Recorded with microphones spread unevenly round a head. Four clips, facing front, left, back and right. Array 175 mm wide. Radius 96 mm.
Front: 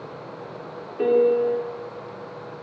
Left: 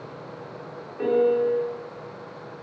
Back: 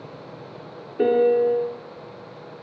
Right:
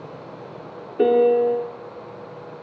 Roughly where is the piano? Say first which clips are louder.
Right 5 dB, back 1 dB; behind right.